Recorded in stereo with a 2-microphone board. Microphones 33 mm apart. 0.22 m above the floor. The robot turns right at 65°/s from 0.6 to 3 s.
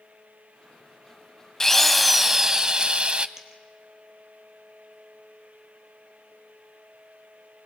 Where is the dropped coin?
15° right (ahead or behind), 2.5 m.